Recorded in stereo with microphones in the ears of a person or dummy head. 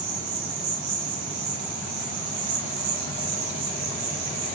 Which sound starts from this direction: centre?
An insect, at 0.0 s.